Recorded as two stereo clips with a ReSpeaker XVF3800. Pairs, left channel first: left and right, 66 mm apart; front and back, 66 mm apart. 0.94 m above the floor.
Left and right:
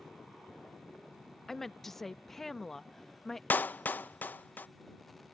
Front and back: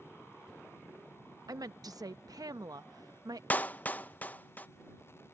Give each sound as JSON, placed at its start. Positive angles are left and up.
{"t": 1.5, "sound": "a woman speaking", "azimuth_deg": 175}
{"t": 3.5, "sound": "a clap", "azimuth_deg": 45}